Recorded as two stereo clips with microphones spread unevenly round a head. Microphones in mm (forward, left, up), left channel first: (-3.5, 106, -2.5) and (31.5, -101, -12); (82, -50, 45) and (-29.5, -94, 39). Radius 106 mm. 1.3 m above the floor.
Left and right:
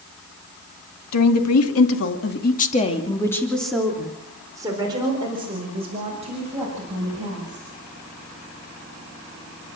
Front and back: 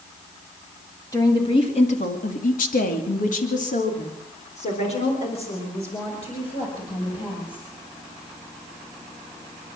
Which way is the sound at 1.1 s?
95° left.